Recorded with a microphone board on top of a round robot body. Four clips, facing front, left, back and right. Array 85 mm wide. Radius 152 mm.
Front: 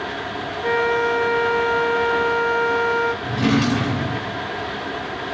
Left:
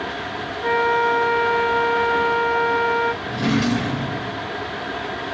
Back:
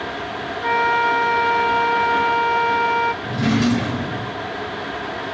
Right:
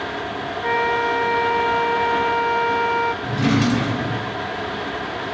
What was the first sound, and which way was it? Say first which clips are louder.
A flute: left 2 dB, back 2 dB; straight behind.